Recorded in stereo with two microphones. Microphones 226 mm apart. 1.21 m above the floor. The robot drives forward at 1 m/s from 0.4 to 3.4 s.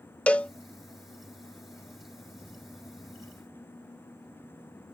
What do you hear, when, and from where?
0.3 s a cowbell: 5° left (ahead or behind)